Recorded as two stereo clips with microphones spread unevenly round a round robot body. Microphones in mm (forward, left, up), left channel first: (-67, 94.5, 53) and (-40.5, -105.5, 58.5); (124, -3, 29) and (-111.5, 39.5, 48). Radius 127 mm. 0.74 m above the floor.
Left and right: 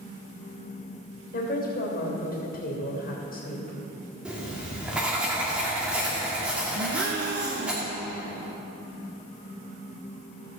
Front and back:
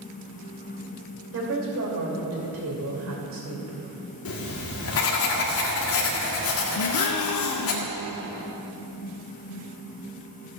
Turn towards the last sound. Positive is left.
turn(degrees=-30)